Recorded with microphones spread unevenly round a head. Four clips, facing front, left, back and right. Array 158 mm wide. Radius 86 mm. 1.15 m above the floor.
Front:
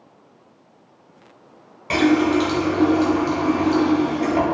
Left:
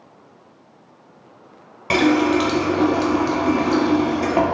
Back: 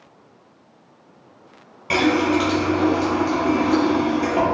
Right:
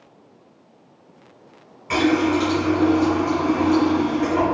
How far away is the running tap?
About 0.7 m.